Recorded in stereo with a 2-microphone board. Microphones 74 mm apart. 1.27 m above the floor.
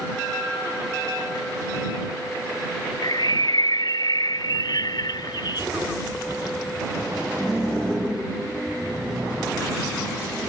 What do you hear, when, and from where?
3.0 s a bird: 70° left (ahead or behind)